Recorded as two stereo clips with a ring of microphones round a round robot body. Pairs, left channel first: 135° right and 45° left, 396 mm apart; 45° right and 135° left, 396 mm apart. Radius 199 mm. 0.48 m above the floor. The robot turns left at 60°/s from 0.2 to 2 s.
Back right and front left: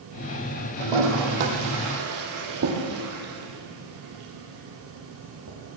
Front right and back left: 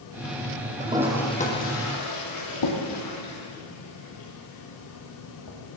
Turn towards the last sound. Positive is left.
turn(degrees=-10)